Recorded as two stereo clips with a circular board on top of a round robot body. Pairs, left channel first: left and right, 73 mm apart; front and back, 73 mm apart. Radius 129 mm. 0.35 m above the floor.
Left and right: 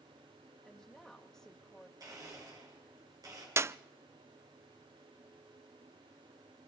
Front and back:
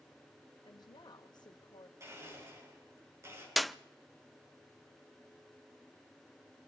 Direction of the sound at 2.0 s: 130° right.